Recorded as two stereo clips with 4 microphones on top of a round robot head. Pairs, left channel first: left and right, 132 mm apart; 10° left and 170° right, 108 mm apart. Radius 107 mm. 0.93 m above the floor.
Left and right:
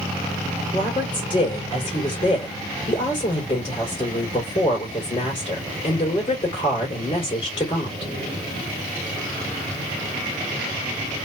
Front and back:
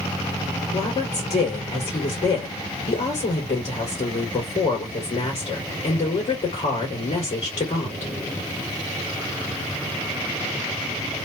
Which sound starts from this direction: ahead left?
A woman speaking, at 0.7 s.